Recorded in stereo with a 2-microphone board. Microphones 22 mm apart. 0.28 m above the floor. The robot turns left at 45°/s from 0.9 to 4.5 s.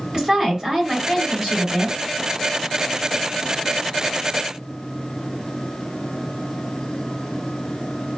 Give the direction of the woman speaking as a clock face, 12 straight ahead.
1 o'clock.